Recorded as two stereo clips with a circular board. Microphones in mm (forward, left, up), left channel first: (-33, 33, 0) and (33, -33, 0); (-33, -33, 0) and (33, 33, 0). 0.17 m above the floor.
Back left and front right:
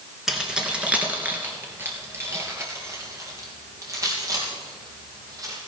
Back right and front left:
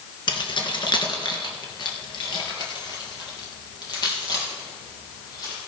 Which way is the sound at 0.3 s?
130° right.